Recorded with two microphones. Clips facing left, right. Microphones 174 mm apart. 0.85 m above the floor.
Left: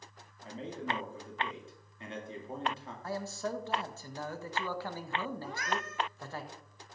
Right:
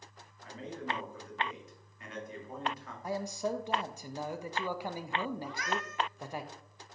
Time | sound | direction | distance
0.4 | a man speaking | 30° left (ahead or behind) | 2 m
3.0 | a man speaking | 15° right (ahead or behind) | 0.6 m
5.4 | a cat meowing | 50° left (ahead or behind) | 1.1 m